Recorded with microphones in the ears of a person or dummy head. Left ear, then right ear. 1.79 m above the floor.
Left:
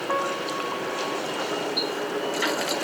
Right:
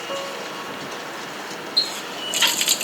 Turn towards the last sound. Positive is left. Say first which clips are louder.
# right 3 dB
turn(degrees=-30)  # may be behind; listen again after turning